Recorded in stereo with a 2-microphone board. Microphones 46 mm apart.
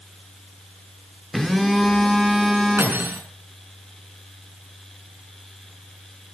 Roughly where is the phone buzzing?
Centre.